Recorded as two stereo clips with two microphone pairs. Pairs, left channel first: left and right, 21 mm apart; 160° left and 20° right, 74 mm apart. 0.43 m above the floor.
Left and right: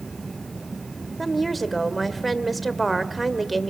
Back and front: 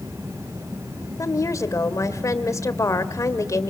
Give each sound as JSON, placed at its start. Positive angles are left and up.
{"t": 1.2, "sound": "a woman speaking", "azimuth_deg": 170, "distance_m": 1.7}